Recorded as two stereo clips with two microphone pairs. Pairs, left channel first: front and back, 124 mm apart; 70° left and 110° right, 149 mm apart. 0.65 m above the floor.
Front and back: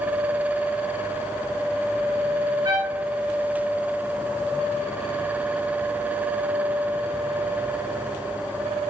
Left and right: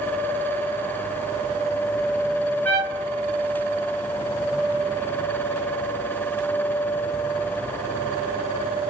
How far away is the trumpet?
About 1.0 m.